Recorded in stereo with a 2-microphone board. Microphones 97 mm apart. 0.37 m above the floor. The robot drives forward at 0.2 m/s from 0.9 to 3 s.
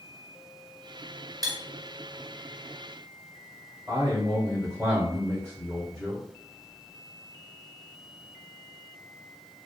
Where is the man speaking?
25° right (ahead or behind), 1.0 m.